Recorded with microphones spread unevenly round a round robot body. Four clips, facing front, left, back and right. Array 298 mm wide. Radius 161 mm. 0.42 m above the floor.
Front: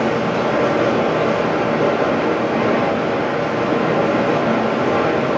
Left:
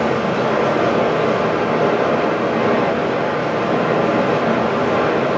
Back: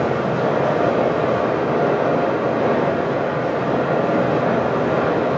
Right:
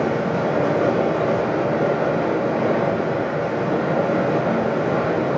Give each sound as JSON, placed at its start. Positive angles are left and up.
{"t": 0.0, "sound": "running water", "azimuth_deg": 25, "distance_m": 1.5}